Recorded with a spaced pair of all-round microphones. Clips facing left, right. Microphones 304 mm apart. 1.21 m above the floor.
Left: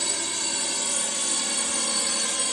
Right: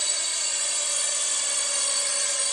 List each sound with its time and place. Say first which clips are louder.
0.0 s a drone: left 8 dB; 70° left (ahead or behind)